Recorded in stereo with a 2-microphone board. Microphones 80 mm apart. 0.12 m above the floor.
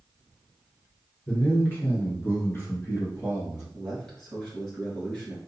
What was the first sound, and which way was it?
A man speaking, 20° left (ahead or behind).